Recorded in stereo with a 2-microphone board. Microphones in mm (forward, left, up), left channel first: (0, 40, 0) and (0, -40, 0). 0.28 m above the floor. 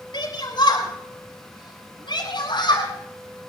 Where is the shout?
70° left (ahead or behind), 5 m.